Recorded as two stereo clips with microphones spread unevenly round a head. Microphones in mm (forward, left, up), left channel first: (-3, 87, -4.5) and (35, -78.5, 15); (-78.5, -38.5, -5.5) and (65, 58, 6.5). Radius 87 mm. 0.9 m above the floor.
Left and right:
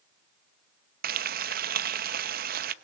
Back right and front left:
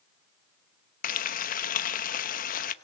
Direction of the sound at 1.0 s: 115° right.